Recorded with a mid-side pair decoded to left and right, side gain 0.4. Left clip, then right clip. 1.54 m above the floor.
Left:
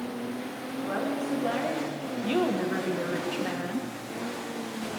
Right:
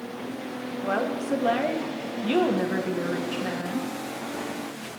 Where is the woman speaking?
55° right, 1.7 m; by 3.9 s 5° left, 1.8 m.